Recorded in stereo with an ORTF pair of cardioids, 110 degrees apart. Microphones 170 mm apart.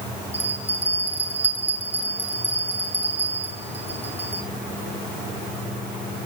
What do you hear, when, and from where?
0.3 s a bell: 10° right, 5 m